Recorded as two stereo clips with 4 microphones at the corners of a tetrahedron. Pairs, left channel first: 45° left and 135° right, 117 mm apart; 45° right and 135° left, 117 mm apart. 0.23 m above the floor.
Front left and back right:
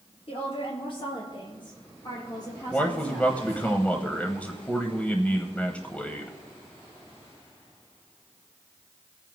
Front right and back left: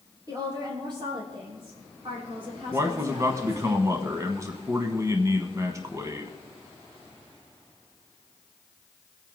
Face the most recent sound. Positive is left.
turn(degrees=110)